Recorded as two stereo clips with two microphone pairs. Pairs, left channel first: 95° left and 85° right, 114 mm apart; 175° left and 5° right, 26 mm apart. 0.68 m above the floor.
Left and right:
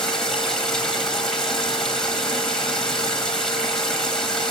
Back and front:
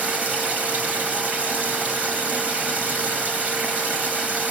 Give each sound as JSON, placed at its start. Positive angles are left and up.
{"t": 0.0, "sound": "running water", "azimuth_deg": 15, "distance_m": 4.0}